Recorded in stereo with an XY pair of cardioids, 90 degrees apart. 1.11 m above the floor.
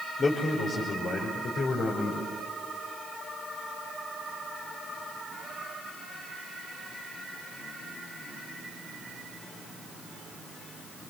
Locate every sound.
0.2 s a man speaking: 55° left, 5 m; by 2.3 s 70° left, 5.5 m